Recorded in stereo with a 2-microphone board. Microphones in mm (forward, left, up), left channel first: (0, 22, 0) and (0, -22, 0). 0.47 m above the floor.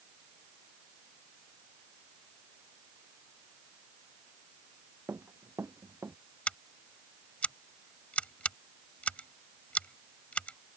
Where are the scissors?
35° left (ahead or behind).